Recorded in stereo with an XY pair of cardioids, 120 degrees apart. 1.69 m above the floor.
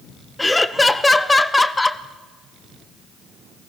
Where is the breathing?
I don't hear breathing.